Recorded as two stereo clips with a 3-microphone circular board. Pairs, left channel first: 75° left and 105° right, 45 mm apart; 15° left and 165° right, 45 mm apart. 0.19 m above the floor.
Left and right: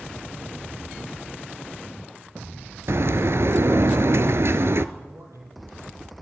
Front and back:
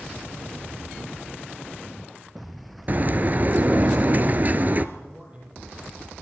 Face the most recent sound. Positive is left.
turn(degrees=-105)